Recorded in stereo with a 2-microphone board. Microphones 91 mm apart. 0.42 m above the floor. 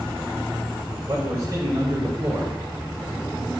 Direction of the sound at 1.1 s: 40° right (ahead or behind).